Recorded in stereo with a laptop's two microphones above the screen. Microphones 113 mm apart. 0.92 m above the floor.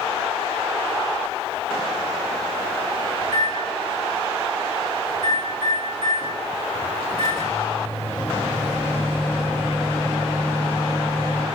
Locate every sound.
3.2 s a microwave: 45° left (ahead or behind), 1.6 m